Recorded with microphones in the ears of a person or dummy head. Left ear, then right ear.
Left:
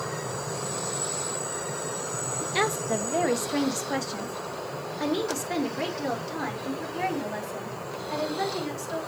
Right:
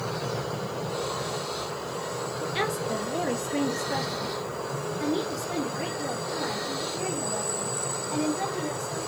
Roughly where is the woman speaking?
Centre.